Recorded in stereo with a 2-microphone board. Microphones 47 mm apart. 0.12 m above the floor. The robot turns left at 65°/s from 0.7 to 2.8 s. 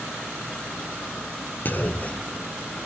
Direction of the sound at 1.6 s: 45° left (ahead or behind).